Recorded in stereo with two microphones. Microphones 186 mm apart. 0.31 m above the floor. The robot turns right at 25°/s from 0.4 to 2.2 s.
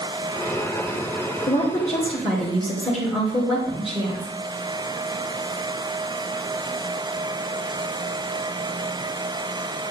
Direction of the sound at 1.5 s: 20° left (ahead or behind).